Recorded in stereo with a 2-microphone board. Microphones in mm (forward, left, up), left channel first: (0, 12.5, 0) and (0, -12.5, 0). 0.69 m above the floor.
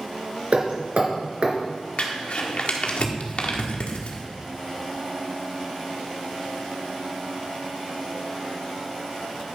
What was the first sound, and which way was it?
Hammering, 60° right (ahead or behind).